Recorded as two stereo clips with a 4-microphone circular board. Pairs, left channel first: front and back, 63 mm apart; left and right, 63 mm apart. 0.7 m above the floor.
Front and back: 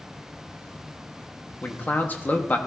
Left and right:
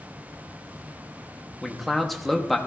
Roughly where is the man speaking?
Ahead.